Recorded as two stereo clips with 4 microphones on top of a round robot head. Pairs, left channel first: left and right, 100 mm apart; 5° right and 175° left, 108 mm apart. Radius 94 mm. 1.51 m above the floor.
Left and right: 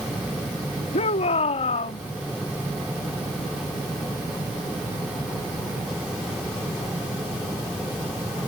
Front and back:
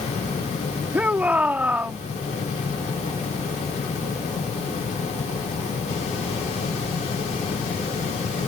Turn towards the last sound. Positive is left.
turn(degrees=100)